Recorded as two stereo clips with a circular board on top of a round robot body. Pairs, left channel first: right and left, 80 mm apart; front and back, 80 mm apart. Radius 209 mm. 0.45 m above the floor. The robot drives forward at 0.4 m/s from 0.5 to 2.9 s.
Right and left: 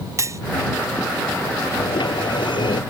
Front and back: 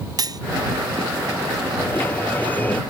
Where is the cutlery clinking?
140° left.